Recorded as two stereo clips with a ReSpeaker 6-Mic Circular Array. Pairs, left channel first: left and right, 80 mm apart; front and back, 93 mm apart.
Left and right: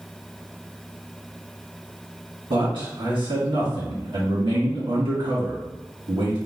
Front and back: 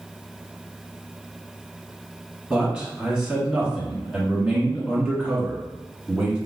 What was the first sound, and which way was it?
A man speaking, 95° right.